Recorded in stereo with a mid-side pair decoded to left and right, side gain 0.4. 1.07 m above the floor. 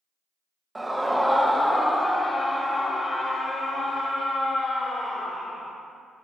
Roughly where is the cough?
No cough in this recording.